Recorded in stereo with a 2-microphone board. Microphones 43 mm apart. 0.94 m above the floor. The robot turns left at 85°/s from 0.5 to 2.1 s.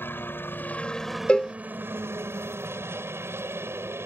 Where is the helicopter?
60° left; by 4.1 s 75° right.